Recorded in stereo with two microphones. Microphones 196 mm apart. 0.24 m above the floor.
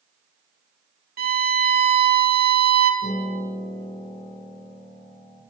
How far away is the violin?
About 0.5 m.